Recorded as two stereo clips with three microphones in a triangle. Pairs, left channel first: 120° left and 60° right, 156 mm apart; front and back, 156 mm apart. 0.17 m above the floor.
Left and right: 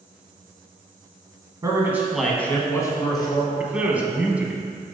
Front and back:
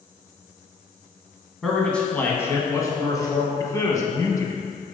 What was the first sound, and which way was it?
A man speaking, 90° right.